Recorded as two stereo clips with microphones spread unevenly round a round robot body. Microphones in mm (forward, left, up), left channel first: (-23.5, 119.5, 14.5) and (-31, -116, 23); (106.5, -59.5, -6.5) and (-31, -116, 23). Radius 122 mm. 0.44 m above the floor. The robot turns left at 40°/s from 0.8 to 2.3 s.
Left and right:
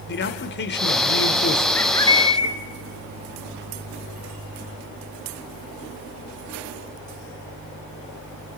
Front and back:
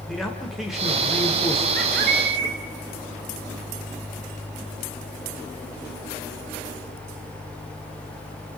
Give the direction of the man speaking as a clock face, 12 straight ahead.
9 o'clock.